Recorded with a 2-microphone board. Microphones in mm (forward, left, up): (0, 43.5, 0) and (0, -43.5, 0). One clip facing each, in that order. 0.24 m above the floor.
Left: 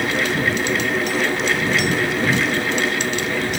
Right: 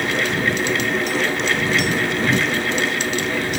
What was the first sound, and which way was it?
Only background noise.